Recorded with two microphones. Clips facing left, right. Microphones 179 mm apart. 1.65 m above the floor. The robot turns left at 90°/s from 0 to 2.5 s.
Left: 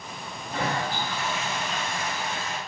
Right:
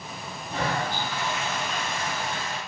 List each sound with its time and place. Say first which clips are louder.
0.5 s a toilet flushing: even; 45° left, 1.8 m; by 2.6 s 135° right, 1.8 m